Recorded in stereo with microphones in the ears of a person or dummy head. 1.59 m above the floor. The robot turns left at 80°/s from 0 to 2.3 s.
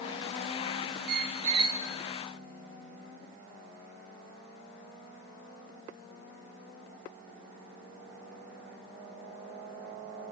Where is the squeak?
100° right, 0.9 m; by 1.8 s 160° right, 0.9 m.